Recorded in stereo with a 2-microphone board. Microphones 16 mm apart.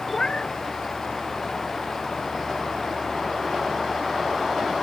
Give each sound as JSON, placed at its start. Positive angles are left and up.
{"t": 0.1, "sound": "a cat meowing", "side_deg": 65}